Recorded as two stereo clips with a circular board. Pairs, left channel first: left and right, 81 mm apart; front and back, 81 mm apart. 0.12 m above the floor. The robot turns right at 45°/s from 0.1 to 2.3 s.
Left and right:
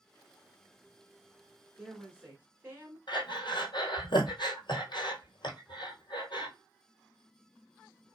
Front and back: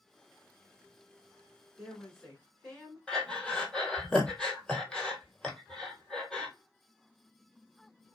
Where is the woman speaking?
90° right, 1.6 m; by 3.0 s 65° right, 1.6 m.